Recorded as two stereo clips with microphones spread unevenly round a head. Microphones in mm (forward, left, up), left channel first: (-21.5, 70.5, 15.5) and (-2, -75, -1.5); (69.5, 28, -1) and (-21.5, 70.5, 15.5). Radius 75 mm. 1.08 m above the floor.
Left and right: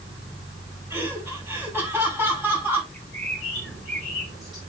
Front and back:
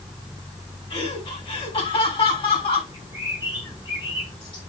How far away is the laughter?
About 8.5 m.